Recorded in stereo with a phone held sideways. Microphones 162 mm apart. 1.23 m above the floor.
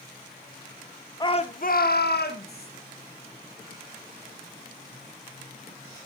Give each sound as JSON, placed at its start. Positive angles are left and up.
{"t": 1.2, "sound": "a shout", "side_deg": 25, "distance_m": 0.9}